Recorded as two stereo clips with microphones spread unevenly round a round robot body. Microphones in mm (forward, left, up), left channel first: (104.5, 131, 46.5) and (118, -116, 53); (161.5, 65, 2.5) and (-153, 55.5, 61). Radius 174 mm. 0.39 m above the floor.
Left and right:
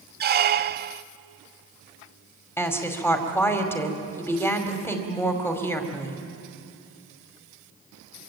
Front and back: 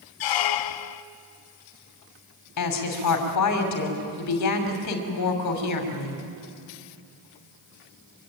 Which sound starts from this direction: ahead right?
A squeak, at 0.2 s.